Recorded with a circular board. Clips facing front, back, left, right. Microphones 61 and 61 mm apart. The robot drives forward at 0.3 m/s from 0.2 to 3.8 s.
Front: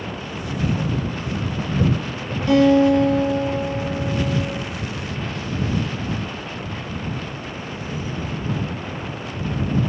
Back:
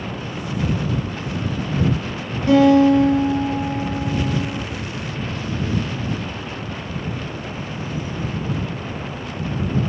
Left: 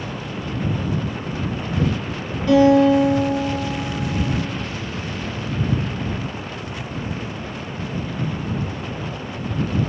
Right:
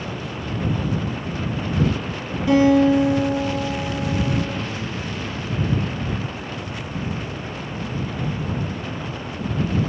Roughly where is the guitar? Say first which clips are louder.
Back 2 dB, left 2 dB; behind.